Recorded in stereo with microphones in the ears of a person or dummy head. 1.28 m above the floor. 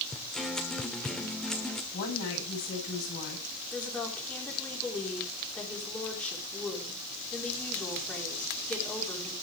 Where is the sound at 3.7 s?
5° left (ahead or behind), 4.5 m.